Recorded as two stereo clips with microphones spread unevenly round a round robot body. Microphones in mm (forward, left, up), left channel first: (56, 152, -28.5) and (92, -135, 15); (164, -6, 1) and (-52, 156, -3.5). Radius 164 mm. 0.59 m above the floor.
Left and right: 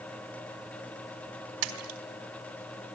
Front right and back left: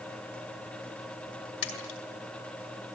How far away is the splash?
About 3.5 m.